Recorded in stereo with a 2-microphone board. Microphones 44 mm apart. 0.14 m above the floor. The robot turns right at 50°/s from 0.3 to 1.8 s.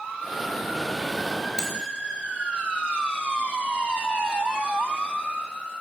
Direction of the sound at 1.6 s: 15° left (ahead or behind).